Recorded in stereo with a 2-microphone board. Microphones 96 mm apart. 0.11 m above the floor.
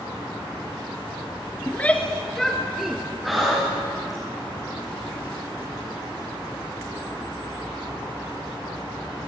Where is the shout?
20° left (ahead or behind), 1.4 m; by 3.0 s 5° right (ahead or behind), 1.9 m.